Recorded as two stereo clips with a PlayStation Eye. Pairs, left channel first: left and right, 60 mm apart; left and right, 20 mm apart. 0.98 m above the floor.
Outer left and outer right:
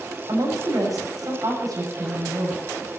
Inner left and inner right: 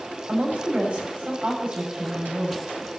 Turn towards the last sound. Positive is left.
turn(degrees=-80)